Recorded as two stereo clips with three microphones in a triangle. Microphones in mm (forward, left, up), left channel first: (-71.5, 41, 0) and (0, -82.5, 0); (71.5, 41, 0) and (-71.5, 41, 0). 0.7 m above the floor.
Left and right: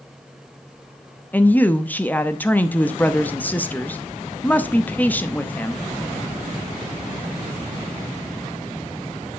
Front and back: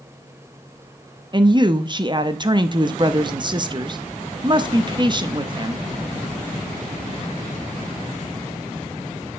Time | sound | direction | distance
1.3 | a woman speaking | 170° right | 0.7 m